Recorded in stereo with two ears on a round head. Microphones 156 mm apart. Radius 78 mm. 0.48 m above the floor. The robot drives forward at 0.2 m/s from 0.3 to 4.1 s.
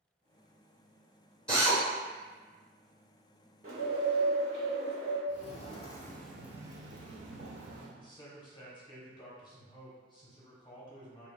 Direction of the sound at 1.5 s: 5° left (ahead or behind).